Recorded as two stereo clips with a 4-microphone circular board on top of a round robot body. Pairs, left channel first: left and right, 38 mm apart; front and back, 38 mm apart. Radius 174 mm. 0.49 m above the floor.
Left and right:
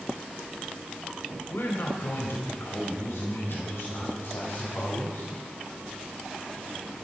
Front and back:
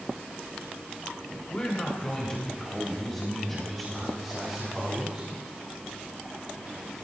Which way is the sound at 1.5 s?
65° left.